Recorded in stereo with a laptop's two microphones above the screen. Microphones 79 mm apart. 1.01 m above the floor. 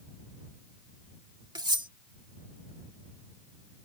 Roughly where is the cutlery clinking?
Right.